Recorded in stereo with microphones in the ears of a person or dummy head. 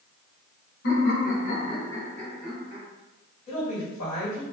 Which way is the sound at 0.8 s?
75° left (ahead or behind).